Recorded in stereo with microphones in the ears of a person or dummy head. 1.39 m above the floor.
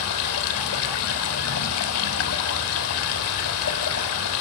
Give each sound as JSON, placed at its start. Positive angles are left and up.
{"t": 0.0, "sound": "running water", "side_deg": 75, "distance_m": 3.5}